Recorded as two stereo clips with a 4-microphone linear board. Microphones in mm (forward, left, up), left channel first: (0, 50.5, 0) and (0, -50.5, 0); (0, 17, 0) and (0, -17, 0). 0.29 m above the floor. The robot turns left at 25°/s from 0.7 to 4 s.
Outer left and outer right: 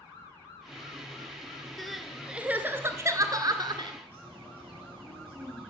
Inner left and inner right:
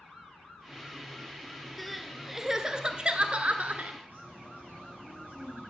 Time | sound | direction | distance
1.8 | crying | 5° left | 0.8 m
4.0 | a bird | 65° right (ahead or behind) | 6.5 m